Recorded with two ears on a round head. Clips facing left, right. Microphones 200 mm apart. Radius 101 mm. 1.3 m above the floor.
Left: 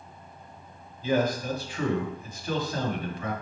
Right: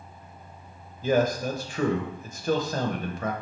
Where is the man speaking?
40° right (ahead or behind), 1.0 m.